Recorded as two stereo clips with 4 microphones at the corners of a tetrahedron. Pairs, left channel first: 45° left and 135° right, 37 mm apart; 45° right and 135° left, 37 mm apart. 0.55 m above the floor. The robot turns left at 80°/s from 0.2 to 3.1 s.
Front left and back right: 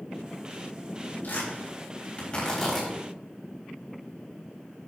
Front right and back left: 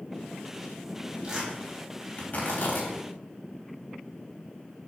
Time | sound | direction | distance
1.2 | tearing paper | 70° left | 4 m